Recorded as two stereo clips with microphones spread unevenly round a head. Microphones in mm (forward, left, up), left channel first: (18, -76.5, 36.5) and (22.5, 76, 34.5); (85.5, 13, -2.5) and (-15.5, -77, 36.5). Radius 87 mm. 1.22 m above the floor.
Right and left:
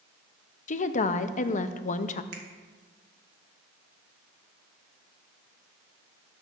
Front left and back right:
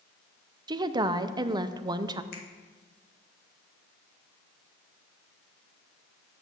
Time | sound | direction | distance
0.7 | a woman speaking | 70° right | 0.6 m
2.3 | a finger snap | 70° left | 1.4 m